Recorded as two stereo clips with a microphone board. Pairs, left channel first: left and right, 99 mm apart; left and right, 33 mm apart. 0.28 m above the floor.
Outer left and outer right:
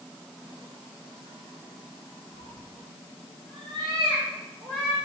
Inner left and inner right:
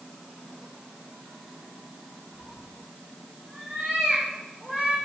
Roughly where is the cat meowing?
Right.